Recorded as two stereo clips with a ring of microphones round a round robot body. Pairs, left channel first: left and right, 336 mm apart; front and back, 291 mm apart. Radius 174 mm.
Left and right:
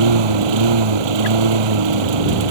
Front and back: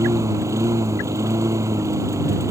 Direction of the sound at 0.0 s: 100° right.